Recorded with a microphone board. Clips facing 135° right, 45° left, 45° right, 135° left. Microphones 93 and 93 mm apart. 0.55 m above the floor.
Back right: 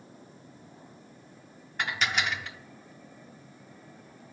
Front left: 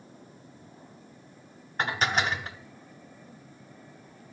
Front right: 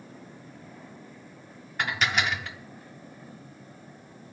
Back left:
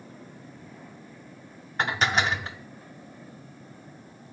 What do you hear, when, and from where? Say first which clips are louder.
1.8 s dishes clattering: front left 3 dB, back left 3 dB; 85° left, 0.6 m